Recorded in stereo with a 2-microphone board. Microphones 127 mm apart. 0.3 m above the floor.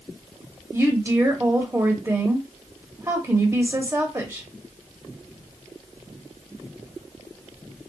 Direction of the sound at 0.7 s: 25° right (ahead or behind).